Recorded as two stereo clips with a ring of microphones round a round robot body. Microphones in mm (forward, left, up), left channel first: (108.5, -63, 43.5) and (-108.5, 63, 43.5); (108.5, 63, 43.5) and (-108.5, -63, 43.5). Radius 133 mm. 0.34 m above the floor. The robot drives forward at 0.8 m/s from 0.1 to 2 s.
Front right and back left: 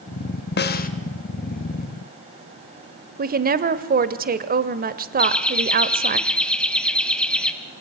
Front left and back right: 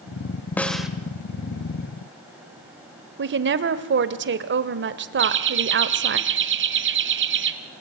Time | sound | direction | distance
0.6 | a snare drum | 50° right | 1.4 m
3.2 | a woman speaking | 170° right | 1.2 m
5.2 | laughter | 115° right | 2 m